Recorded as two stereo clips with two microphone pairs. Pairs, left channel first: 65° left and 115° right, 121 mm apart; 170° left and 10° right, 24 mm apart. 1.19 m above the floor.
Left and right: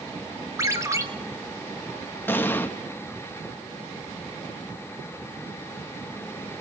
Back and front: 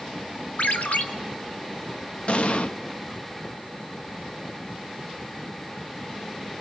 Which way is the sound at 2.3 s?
135° left.